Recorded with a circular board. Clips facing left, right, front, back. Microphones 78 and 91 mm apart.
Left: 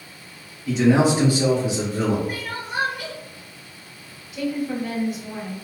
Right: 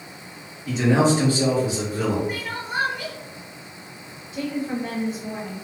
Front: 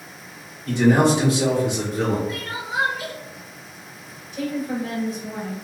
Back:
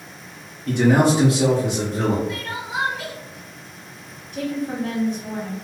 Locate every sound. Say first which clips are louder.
0.7 s a man speaking: left 2 dB, even; 175° right, 1.2 m; by 2.2 s 150° left, 2 m
2.3 s crying: even, even; straight behind, 1.4 m
4.3 s a woman speaking: left 1 dB, even; 145° right, 1.2 m